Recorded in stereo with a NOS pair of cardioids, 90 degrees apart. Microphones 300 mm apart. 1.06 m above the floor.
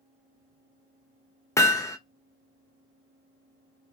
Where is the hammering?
10° left, 0.9 m.